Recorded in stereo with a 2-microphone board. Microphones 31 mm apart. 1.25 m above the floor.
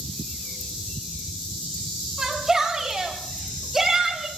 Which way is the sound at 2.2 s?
15° right (ahead or behind).